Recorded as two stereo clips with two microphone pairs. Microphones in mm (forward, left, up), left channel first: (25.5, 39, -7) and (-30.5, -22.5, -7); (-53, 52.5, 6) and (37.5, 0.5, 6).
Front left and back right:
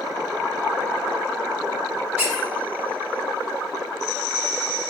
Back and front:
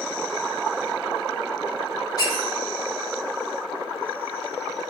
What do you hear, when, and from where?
2.2 s a squeak: 165° left, 1.0 m